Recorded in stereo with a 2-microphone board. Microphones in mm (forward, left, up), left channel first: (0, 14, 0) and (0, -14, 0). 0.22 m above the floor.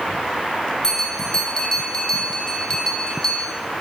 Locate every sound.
0.8 s a bell: 20° left (ahead or behind), 6.5 m